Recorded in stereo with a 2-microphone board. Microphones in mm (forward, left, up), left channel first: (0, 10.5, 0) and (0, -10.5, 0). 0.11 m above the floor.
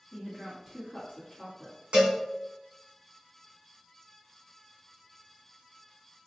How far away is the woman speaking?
About 1.5 m.